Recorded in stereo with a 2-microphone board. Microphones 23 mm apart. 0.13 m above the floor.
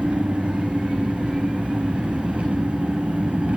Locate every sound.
0.0 s an engine running: 65° right (ahead or behind), 4 m